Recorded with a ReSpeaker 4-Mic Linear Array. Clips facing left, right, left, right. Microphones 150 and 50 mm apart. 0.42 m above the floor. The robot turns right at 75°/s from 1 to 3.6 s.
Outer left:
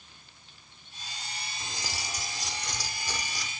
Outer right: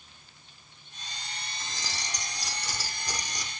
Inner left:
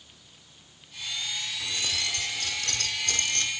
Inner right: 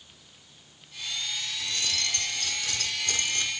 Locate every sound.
1.6 s keys jangling: 15° left (ahead or behind), 0.8 m; by 3.5 s 20° right (ahead or behind), 0.8 m